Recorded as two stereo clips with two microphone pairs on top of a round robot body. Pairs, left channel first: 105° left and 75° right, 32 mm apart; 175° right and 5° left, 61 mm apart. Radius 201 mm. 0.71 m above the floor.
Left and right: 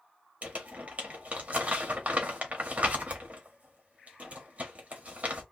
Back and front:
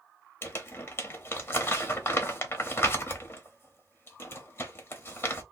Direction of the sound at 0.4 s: 120° right.